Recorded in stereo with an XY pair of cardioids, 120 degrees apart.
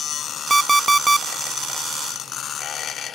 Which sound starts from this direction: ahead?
An alarm clock, at 0.5 s.